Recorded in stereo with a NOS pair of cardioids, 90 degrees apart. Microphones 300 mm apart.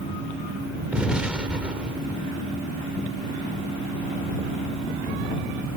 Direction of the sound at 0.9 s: 5° right.